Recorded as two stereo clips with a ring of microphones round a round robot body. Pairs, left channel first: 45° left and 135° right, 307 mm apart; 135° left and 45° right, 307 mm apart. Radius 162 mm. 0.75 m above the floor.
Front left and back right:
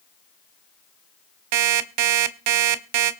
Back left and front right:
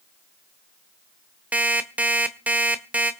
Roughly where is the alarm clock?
Behind right.